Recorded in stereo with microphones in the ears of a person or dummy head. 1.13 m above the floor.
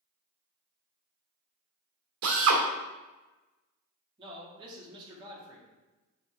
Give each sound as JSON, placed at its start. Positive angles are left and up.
{"t": 2.2, "sound": "a drill", "side_deg": -75, "distance_m": 1.5}
{"t": 4.2, "sound": "a man speaking", "side_deg": -25, "distance_m": 1.6}